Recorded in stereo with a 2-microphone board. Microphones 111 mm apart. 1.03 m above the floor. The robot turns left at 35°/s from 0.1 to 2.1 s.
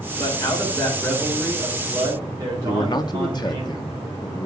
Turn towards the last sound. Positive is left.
turn(degrees=40)  # may be behind; listen again after turning